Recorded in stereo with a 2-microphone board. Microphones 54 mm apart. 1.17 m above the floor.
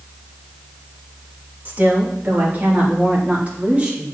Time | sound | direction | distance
1.6 | a woman speaking | 35° right (ahead or behind) | 1.8 m